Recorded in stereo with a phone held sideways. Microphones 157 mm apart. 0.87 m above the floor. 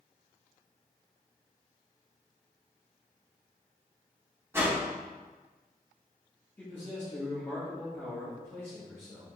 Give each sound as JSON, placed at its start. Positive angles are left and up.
{"t": 4.5, "sound": "a whoosh", "side_deg": -15, "distance_m": 2.0}
{"t": 6.6, "sound": "a man speaking", "side_deg": 15, "distance_m": 1.7}